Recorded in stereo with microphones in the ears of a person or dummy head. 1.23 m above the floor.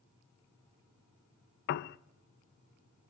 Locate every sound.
1.7 s a piano: 60° left (ahead or behind), 0.6 m